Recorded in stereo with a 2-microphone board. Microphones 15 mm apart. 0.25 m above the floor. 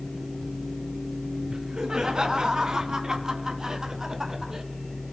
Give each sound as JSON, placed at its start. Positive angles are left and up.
{"t": 1.5, "sound": "laughter", "side_deg": -55, "distance_m": 3.0}